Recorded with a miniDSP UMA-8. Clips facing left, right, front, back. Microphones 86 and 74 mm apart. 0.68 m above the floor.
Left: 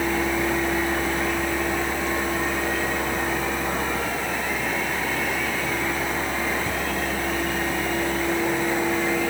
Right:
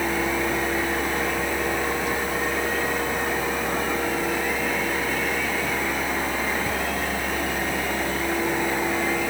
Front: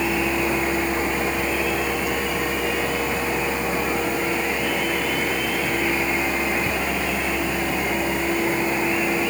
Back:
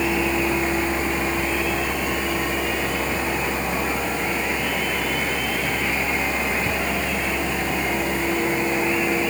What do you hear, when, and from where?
Only background noise.